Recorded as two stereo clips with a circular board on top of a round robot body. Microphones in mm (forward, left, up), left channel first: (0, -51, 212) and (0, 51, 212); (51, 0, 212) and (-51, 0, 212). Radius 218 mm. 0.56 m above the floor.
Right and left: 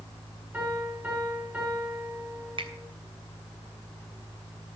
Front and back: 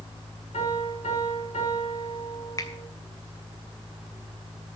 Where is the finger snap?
55° left, 2.0 m.